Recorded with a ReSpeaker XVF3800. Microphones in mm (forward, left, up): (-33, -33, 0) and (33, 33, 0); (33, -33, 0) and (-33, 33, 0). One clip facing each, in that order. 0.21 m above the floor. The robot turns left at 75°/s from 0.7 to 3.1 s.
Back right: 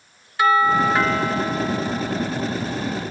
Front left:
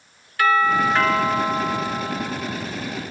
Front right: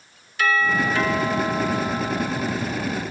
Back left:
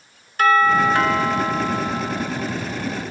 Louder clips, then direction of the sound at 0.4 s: Back right 1 dB, back left 6 dB; 160° left.